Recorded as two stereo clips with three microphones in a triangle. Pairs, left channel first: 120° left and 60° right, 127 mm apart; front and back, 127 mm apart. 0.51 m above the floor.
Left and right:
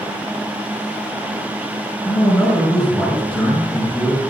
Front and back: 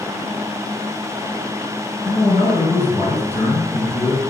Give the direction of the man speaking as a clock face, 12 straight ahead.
11 o'clock.